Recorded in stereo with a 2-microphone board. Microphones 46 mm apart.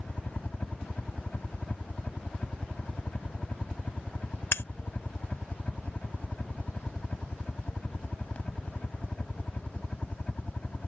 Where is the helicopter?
30° left (ahead or behind).